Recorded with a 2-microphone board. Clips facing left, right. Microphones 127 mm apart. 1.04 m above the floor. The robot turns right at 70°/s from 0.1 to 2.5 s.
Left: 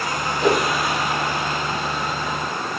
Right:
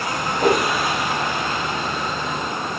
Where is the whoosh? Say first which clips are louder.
Right 1 dB; 55° right (ahead or behind), 2 m; by 0.6 s 40° right (ahead or behind), 2 m.